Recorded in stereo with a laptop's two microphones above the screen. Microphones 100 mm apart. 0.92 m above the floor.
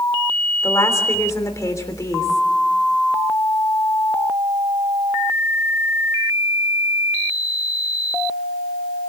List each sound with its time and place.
0.6 s a woman speaking: 30° left (ahead or behind), 3 m